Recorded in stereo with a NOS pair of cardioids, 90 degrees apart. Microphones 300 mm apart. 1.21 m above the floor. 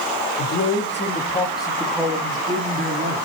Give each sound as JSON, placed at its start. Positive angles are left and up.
{"t": 0.4, "sound": "a man speaking", "azimuth_deg": 50, "distance_m": 3.0}